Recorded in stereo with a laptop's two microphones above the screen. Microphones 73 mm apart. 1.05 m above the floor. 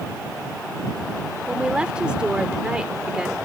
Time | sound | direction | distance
1.5 | a woman speaking | 10° right (ahead or behind) | ?